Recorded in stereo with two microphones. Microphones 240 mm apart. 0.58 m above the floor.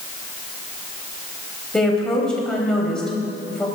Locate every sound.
1.7 s a woman speaking: 5° left (ahead or behind), 4 m